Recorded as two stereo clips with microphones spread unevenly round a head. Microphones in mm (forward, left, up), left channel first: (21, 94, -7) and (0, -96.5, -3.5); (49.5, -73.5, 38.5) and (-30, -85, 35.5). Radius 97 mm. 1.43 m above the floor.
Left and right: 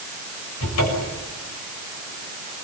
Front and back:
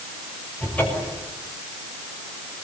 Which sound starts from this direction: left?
A cupboard door, at 0.6 s.